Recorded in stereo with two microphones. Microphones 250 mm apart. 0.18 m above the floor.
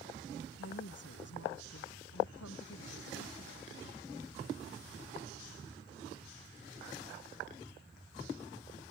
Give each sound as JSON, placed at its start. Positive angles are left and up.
{"t": 0.6, "sound": "a woman speaking", "side_deg": 75}